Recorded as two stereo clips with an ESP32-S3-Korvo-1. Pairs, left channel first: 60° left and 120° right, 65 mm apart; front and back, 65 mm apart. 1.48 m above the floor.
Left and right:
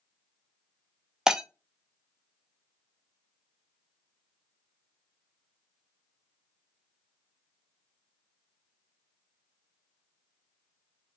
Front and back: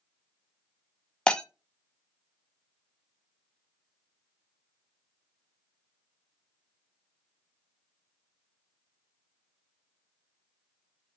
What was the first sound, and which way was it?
Breaking glass, 50° right.